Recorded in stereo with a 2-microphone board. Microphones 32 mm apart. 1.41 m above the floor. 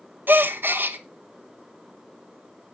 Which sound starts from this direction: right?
A gasp, at 0.3 s.